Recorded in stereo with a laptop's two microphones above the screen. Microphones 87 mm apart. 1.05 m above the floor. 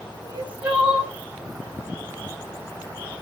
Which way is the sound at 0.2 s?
15° right (ahead or behind).